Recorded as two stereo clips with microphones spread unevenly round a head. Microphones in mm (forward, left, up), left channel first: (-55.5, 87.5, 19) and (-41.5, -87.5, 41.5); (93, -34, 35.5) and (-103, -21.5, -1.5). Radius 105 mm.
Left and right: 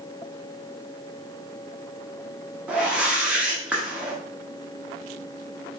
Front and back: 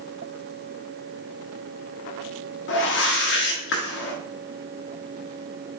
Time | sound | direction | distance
2.7 | a whoosh | 5° left | 0.9 m